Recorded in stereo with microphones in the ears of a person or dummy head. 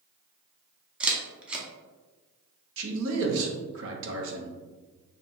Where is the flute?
No flute in this recording.